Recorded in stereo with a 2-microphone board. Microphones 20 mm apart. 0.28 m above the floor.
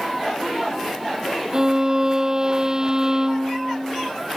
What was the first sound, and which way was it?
A violin, 30° right (ahead or behind).